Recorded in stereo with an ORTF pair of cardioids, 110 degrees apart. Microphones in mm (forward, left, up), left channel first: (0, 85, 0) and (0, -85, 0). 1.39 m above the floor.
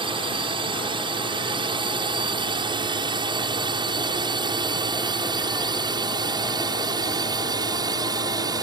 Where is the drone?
30° right; by 8.6 s 25° right.